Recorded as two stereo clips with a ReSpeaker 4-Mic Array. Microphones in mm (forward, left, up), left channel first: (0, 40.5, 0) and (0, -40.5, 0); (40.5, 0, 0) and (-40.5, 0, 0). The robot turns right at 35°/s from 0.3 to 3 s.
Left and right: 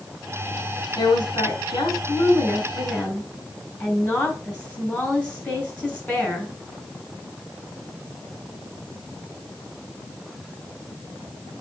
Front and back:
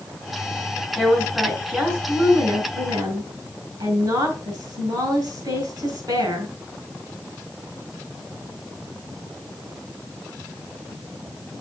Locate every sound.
1.0 s a woman speaking: 90° left, 5 m; by 6.5 s 165° left, 5 m